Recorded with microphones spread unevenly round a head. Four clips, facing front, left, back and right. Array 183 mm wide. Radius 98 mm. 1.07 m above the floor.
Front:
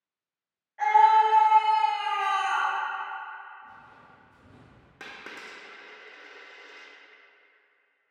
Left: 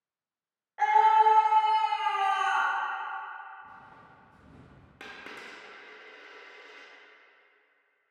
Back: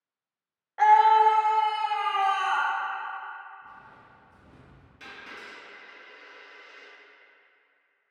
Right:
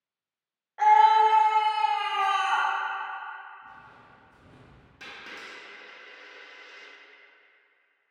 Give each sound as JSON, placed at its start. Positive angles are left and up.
{"t": 0.8, "sound": "a scream", "azimuth_deg": -175, "distance_m": 0.6}
{"t": 3.6, "sound": "footsteps", "azimuth_deg": -175, "distance_m": 1.2}
{"t": 5.0, "sound": "a dropped coin", "azimuth_deg": 35, "distance_m": 0.5}